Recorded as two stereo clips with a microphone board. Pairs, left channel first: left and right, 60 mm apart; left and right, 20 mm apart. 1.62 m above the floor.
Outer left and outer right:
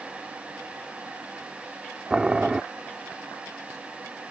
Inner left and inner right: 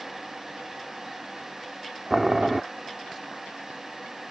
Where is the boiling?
10° right (ahead or behind).